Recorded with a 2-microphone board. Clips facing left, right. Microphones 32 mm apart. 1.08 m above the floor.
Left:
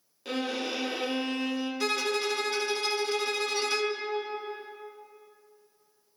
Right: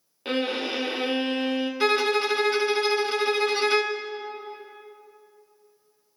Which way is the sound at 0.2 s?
40° right (ahead or behind).